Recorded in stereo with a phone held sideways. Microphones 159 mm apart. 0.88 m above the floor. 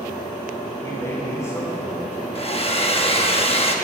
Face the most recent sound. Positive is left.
turn(degrees=40)  # may be behind; listen again after turning